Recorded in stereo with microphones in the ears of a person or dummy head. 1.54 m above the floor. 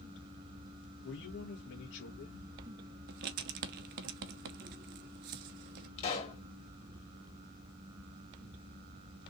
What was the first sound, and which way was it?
A man speaking, 70° left (ahead or behind).